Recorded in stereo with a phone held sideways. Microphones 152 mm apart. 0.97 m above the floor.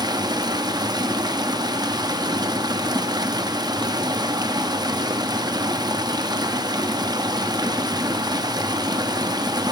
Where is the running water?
25° right (ahead or behind), 0.8 m.